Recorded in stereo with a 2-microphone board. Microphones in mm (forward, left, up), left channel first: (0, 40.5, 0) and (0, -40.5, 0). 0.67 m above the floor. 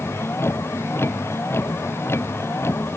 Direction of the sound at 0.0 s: 30° left (ahead or behind).